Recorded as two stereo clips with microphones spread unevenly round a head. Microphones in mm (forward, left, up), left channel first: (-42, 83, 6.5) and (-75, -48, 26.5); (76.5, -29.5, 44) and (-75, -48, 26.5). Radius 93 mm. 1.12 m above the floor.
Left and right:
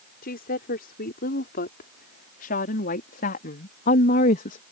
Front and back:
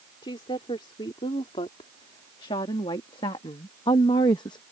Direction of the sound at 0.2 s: 70° left.